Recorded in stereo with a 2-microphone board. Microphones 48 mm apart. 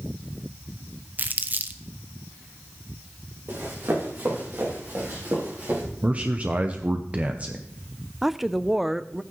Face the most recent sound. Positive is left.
turn(degrees=-5)  # may be behind; listen again after turning